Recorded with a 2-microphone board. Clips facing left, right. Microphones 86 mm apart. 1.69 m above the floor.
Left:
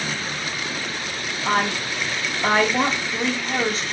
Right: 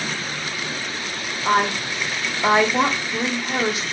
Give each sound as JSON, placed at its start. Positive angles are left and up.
{"t": 1.4, "sound": "a woman speaking", "side_deg": -10, "distance_m": 0.5}